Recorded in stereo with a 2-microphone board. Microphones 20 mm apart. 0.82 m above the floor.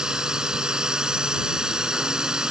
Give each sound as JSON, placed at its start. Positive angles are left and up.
{"t": 0.0, "sound": "a drone", "side_deg": -30}